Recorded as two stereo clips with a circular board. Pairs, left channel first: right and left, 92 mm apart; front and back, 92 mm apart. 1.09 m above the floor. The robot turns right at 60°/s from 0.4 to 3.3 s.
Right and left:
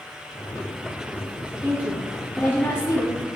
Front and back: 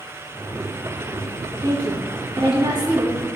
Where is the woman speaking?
140° left, 1.6 m; by 3.3 s 120° right, 1.6 m.